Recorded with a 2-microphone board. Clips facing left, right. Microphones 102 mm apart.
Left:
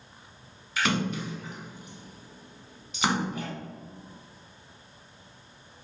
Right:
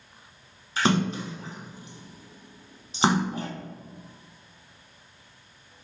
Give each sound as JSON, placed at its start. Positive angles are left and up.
{"t": 0.8, "sound": "a splash", "side_deg": -30, "distance_m": 0.8}